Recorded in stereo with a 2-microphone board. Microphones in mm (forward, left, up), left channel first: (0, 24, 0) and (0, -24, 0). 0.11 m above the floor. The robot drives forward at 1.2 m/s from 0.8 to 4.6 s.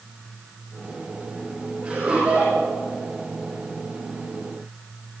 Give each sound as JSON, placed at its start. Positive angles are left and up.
{"t": 1.8, "sound": "laughter", "side_deg": -25, "distance_m": 5.5}